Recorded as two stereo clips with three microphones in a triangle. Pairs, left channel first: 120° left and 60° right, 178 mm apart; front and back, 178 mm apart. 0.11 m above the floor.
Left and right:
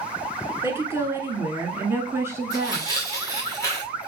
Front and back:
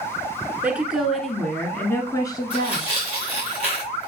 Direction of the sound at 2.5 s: 50° left.